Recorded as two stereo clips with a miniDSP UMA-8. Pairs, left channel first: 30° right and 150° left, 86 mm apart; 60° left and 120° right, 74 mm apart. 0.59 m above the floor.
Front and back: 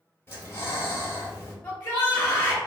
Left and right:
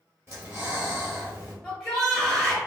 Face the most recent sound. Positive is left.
turn(degrees=-45)